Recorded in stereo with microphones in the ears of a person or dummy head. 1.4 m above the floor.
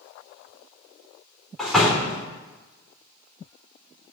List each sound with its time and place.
1.6 s a door slam: 5° left (ahead or behind), 3 m